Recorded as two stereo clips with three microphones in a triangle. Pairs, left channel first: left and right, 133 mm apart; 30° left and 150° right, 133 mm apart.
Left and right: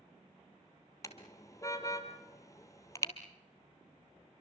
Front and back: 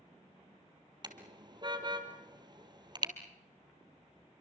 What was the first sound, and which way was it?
A car horn, 155° left.